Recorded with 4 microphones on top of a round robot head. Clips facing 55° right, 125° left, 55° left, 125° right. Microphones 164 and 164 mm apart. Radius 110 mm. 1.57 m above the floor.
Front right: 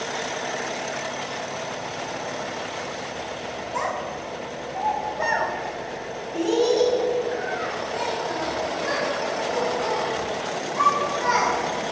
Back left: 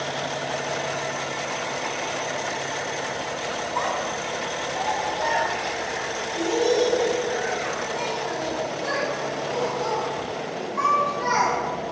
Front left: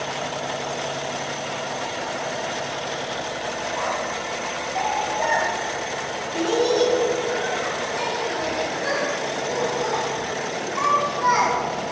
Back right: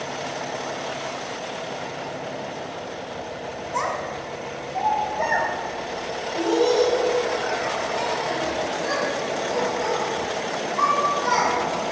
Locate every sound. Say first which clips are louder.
3.7 s a child speaking: even, back right 2 dB; 120° right, 1.3 m; by 11.5 s 15° left, 5 m